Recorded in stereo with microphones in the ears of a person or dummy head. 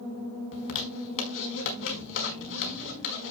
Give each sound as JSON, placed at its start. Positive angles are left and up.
{"t": 0.5, "sound": "a zipper", "side_deg": 70, "distance_m": 5.0}